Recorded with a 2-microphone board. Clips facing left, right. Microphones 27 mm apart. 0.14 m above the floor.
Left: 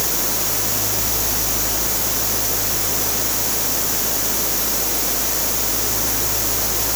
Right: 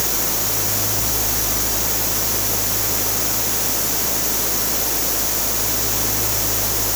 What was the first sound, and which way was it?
Only background noise.